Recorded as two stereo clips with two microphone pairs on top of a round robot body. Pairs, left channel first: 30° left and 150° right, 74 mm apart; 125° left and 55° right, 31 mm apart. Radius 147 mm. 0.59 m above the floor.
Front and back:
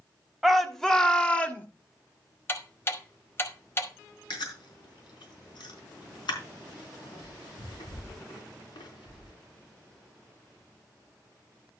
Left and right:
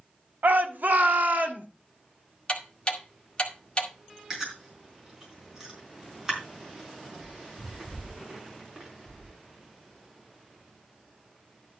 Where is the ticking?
80° left, 2 m.